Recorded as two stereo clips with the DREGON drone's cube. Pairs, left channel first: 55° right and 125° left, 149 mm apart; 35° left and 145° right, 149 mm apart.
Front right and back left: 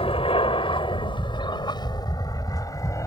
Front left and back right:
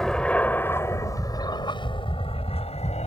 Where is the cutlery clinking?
No cutlery clinking in this recording.